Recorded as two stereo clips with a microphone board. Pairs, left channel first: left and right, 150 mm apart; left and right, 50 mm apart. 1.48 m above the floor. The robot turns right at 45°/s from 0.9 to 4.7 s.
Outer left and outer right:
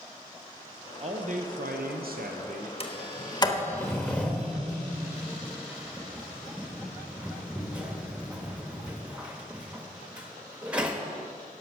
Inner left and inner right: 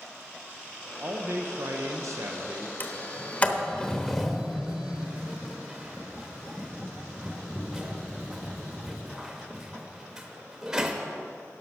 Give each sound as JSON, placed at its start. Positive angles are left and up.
{"t": 1.0, "sound": "a man speaking", "azimuth_deg": -135, "distance_m": 0.9}
{"t": 2.8, "sound": "a sliding door", "side_deg": 40, "distance_m": 1.0}